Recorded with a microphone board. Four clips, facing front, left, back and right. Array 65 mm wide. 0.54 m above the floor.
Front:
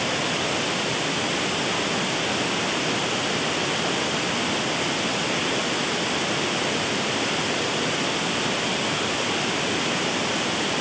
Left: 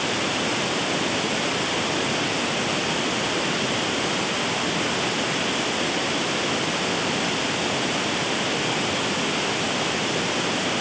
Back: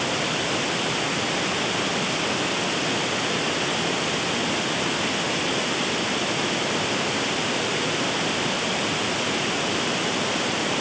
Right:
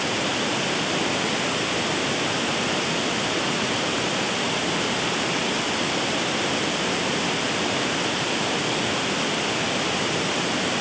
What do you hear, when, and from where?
Only background noise.